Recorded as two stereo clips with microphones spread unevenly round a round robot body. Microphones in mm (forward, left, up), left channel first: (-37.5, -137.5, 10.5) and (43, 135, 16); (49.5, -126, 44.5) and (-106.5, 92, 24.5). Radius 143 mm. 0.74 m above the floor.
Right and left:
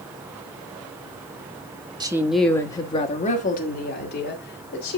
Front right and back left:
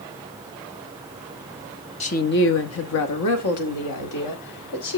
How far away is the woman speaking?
About 1.1 m.